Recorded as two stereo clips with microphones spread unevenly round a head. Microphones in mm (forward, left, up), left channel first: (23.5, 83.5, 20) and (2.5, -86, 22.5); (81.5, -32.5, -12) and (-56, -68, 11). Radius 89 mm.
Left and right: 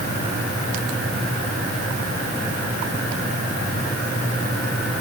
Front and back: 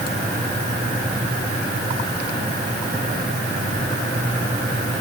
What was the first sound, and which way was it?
Only background noise.